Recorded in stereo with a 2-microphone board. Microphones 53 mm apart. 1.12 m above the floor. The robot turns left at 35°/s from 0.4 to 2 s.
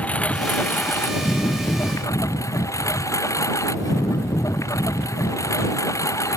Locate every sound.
0.0 s a lawn mower: 155° left; by 6.4 s 95° left